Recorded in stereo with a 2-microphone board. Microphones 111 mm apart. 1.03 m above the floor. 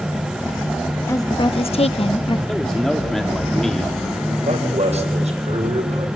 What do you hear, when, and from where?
1.1 s a woman speaking: 25° left (ahead or behind), 1.0 m; by 2.4 s 45° left (ahead or behind), 1.2 m
2.5 s a man speaking: 5° left (ahead or behind), 2.0 m
4.4 s a man speaking: 85° right, 4 m